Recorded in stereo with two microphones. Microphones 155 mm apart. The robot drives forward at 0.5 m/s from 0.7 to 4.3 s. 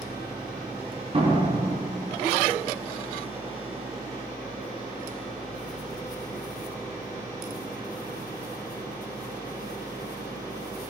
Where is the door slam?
40° right (ahead or behind), 6 m; by 2.1 s 35° right (ahead or behind), 6.5 m.